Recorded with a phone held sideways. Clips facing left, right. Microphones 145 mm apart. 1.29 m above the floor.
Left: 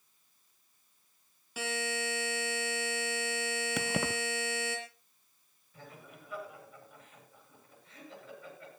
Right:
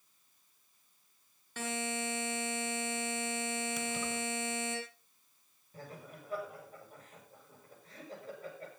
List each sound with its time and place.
1.6 s a buzzer: 10° left (ahead or behind), 5.5 m
3.8 s keys jangling: 70° left (ahead or behind), 0.7 m
5.7 s laughter: 40° right (ahead or behind), 8 m